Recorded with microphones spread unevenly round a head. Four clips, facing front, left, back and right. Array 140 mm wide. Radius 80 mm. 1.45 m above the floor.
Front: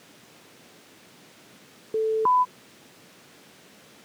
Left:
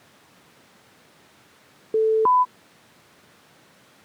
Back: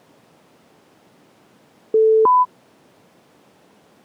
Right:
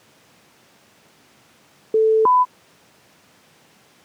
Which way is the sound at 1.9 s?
165° right.